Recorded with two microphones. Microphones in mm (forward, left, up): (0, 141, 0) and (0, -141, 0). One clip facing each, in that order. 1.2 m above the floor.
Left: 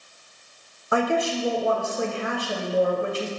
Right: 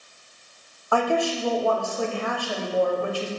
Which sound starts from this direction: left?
A woman speaking, at 0.9 s.